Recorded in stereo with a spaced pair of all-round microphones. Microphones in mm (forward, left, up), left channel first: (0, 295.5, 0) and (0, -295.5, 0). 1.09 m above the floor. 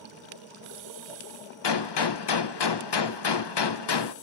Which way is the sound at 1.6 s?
45° left (ahead or behind).